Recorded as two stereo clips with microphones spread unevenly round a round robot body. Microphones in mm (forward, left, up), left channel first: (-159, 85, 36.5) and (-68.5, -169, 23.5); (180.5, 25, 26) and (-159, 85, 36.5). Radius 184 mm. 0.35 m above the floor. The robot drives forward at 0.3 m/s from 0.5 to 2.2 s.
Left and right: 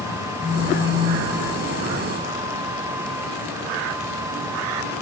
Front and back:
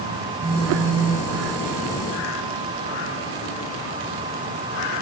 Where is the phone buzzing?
135° right, 5.5 m; by 1.3 s 140° right, 5.5 m.